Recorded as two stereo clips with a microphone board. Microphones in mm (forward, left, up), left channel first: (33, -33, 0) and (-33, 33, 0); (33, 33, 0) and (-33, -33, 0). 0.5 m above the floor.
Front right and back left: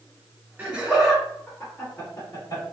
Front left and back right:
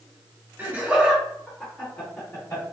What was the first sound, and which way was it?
Laughter, 170° right.